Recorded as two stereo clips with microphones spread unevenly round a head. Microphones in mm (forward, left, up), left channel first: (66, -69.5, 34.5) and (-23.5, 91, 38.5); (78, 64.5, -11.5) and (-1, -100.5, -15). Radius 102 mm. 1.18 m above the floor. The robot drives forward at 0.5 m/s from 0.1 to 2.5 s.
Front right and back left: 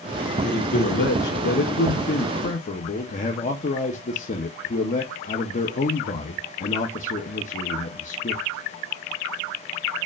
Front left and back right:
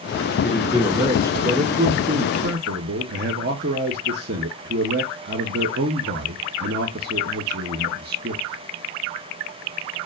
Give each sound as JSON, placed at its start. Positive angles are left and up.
{"t": 0.4, "sound": "a man speaking", "azimuth_deg": -30, "distance_m": 1.1}